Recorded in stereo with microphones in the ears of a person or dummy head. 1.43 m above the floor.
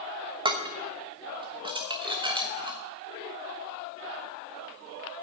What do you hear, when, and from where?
0.5 s dishes clattering: 25° right (ahead or behind), 1.1 m